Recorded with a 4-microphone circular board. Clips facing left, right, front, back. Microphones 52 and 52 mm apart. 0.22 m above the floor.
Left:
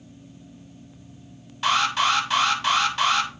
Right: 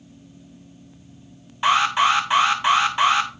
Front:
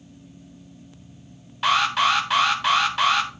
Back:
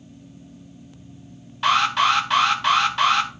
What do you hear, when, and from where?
1.6 s an alarm: 85° right, 1.5 m